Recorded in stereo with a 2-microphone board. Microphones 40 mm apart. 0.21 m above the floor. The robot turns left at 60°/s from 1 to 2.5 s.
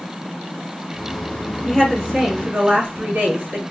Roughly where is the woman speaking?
Ahead.